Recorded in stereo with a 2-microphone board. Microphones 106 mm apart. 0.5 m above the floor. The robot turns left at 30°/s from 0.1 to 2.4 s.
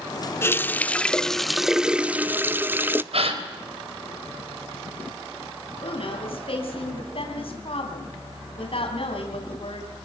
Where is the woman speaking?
60° left (ahead or behind), 4 m.